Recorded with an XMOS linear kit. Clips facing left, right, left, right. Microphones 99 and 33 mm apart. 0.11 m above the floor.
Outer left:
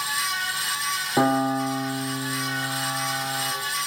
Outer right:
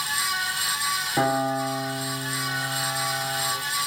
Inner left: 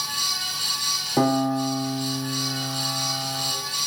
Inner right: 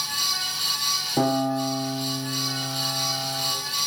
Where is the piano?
20° left (ahead or behind), 3.5 m.